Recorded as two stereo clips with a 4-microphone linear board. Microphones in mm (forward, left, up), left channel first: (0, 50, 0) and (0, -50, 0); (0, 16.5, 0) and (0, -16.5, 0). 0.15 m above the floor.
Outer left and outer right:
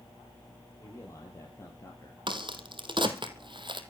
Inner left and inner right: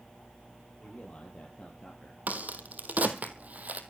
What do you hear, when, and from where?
0.8 s a man speaking: 30° left (ahead or behind), 5 m
2.3 s a crack: 50° right (ahead or behind), 2 m